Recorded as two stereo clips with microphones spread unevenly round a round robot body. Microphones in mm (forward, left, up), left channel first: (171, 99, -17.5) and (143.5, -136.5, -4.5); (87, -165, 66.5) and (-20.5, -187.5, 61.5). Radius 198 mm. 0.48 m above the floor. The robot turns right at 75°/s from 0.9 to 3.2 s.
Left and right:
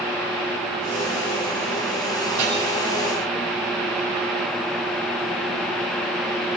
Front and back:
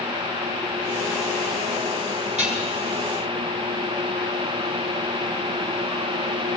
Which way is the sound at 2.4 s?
Straight behind.